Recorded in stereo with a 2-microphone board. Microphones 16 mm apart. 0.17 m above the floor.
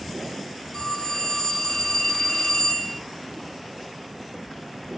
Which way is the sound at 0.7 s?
30° left (ahead or behind).